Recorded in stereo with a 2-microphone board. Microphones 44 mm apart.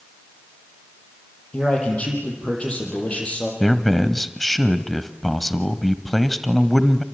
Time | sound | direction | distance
1.5 | a man speaking | 25° left (ahead or behind) | 7.5 m
3.6 | a man speaking | centre (ahead or behind) | 1.2 m